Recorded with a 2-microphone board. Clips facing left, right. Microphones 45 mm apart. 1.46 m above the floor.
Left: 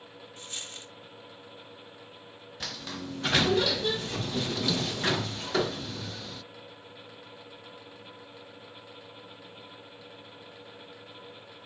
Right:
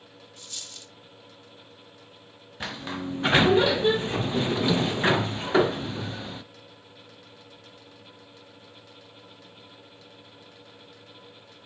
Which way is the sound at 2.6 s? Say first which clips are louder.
Right 6 dB; 30° right (ahead or behind).